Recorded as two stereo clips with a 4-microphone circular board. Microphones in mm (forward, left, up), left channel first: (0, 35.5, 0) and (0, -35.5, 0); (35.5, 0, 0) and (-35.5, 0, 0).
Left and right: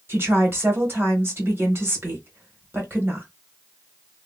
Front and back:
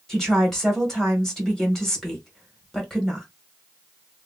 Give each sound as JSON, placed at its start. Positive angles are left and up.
{"t": 0.1, "sound": "a woman speaking", "azimuth_deg": -85, "distance_m": 1.4}